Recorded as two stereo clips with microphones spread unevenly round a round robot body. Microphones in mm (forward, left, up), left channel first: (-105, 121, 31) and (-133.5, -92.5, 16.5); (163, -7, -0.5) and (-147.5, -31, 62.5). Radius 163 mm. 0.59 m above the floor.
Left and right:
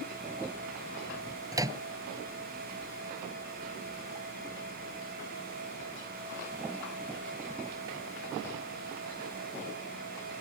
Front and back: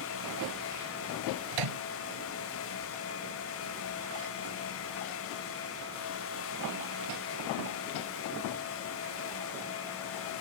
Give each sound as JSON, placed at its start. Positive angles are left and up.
{"t": 1.5, "sound": "a microwave", "azimuth_deg": -170}